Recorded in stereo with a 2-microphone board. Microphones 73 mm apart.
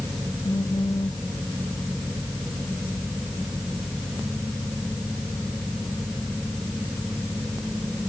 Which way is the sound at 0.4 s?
85° left.